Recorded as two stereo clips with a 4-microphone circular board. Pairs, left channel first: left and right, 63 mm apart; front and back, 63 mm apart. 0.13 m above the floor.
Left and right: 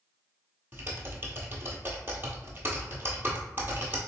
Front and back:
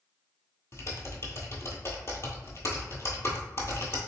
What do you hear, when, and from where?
0.7 s typing on a keyboard: 35° right, 1.2 m